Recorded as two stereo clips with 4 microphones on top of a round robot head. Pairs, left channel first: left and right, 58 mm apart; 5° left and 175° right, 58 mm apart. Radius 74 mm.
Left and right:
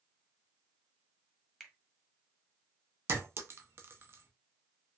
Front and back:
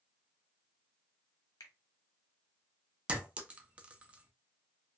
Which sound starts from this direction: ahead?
A finger snap, at 1.6 s.